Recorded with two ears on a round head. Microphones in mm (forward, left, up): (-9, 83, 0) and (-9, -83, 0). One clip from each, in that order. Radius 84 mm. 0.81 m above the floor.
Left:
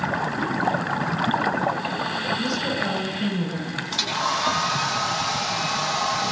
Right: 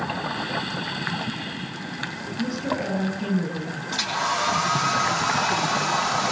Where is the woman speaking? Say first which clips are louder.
Left 3 dB; 85° left, 9 m.